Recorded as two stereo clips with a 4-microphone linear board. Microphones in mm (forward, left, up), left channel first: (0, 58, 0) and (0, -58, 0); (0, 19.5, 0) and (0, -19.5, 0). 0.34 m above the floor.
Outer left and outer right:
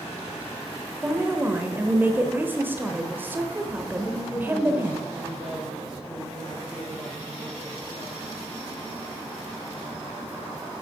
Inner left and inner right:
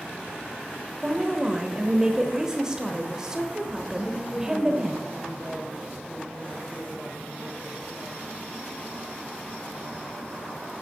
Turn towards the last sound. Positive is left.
turn(degrees=-10)  # may be behind; listen again after turning